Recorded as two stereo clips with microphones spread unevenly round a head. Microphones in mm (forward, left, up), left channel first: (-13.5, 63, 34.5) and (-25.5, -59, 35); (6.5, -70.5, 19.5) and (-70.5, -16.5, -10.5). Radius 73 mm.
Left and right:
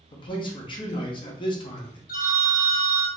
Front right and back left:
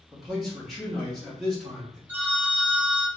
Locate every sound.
0.1 s a man speaking: 75° left, 0.8 m
2.1 s a phone ringing: 55° left, 0.5 m